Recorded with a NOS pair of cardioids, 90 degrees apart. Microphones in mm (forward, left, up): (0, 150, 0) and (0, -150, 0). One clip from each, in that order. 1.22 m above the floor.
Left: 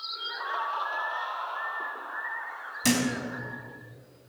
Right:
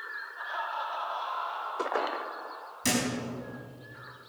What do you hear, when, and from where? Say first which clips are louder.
0.4 s laughter: left 3 dB; 20° left, 3 m; by 3.6 s 10° right, 4.5 m
2.8 s a thud: left 2 dB; 30° left, 4.5 m